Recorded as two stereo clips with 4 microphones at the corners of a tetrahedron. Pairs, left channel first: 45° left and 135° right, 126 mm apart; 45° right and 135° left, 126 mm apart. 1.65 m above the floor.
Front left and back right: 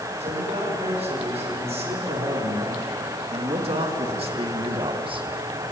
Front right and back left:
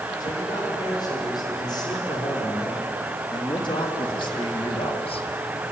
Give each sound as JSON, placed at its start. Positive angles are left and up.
{"t": 0.2, "sound": "a man speaking", "azimuth_deg": -105, "distance_m": 8.0}